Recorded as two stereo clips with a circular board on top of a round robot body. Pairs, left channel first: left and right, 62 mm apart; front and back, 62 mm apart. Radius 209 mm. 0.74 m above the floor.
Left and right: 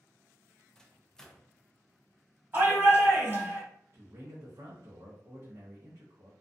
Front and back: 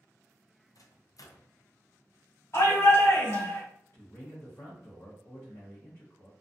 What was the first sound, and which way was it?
A microwave, 10° left.